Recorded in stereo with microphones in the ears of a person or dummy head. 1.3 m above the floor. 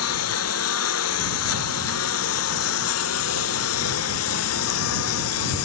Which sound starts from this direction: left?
A lawn mower, at 0.0 s.